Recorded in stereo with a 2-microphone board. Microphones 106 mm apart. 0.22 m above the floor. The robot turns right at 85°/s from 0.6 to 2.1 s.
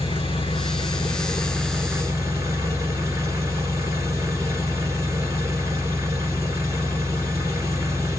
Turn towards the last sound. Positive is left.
turn(degrees=-150)